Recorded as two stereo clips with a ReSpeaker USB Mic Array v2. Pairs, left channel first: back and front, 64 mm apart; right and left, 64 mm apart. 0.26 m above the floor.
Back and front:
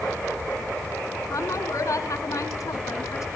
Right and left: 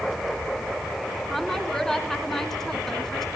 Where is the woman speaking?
175° right, 3 m.